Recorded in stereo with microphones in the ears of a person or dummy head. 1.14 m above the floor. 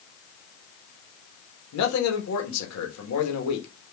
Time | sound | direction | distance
1.7 | a man speaking | 90° left | 1.2 m